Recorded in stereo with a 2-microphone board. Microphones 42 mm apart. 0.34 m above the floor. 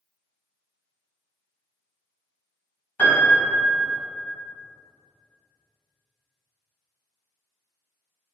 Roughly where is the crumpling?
No crumpling in this recording.